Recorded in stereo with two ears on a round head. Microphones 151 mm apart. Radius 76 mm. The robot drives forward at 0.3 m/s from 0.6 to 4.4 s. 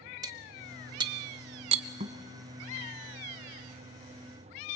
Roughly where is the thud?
Right.